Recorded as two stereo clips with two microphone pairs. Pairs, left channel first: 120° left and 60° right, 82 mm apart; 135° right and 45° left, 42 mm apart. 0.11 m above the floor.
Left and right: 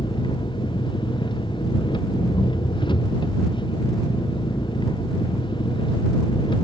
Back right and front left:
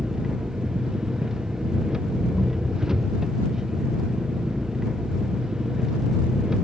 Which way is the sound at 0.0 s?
125° left.